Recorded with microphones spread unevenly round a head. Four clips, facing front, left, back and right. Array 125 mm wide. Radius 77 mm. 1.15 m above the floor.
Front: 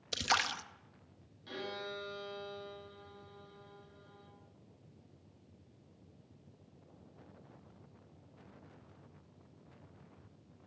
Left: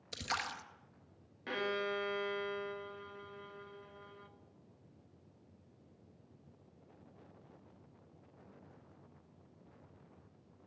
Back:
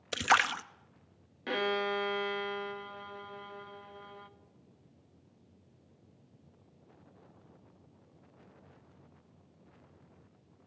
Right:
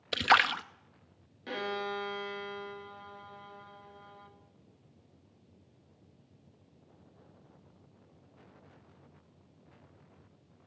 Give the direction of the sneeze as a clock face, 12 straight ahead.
I don't hear a sneeze.